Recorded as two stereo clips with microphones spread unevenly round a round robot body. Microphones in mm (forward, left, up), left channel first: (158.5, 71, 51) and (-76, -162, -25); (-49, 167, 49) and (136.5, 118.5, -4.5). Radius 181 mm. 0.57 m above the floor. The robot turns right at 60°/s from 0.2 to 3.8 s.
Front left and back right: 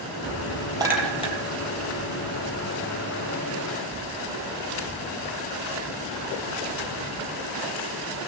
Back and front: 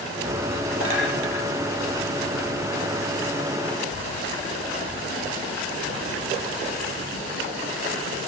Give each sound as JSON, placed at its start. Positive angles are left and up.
{"t": 0.8, "sound": "a clink", "azimuth_deg": -55, "distance_m": 7.5}